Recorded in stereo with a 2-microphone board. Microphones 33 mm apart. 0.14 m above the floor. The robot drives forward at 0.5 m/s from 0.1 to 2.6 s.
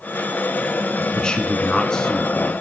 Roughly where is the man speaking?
Left.